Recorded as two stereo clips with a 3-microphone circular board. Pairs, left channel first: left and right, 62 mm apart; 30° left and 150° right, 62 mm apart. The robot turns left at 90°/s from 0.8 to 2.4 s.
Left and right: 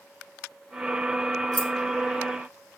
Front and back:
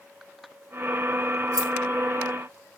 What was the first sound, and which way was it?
Keys jangling, 175° right.